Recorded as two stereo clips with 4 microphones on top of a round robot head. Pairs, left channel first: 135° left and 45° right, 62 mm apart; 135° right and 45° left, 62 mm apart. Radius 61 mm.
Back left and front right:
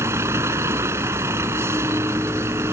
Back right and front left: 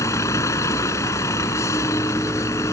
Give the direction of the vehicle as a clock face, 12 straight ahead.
3 o'clock.